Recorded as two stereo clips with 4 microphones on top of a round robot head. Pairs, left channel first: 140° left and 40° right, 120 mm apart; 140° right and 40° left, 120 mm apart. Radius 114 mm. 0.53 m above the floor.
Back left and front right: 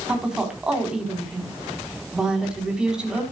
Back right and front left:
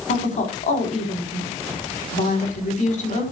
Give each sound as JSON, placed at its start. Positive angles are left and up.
{"t": 0.1, "sound": "a woman speaking", "azimuth_deg": -125, "distance_m": 4.5}